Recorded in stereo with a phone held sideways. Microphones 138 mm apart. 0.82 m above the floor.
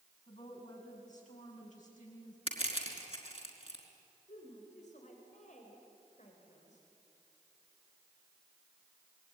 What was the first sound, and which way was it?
A woman speaking, 65° left (ahead or behind).